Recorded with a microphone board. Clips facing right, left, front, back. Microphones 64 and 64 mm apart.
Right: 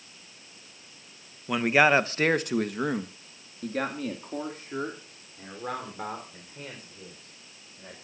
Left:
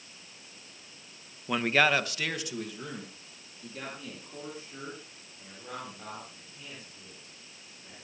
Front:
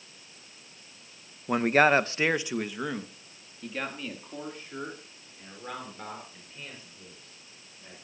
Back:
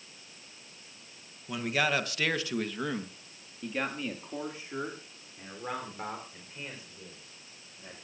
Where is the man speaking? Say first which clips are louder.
Right 4 dB, front 8 dB; straight ahead, 0.8 m; by 8.0 s 110° right, 5 m.